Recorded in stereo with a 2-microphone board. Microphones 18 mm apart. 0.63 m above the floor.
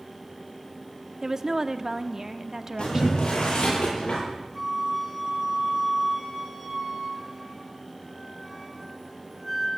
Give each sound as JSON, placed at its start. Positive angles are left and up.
{"t": 1.2, "sound": "a woman speaking", "side_deg": -30, "distance_m": 0.9}
{"t": 2.8, "sound": "boiling", "side_deg": 55, "distance_m": 10.0}
{"t": 4.5, "sound": "a flute", "side_deg": -5, "distance_m": 2.5}